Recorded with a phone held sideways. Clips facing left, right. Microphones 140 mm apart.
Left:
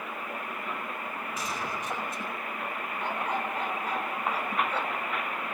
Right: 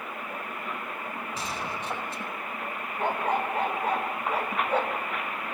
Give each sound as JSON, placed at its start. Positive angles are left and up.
{"t": 1.4, "sound": "a gunshot", "side_deg": -35, "distance_m": 5.0}
{"t": 3.0, "sound": "a dog barking", "side_deg": -60, "distance_m": 1.9}